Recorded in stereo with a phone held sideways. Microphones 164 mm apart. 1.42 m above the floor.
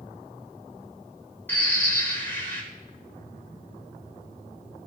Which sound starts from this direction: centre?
A bird, at 1.5 s.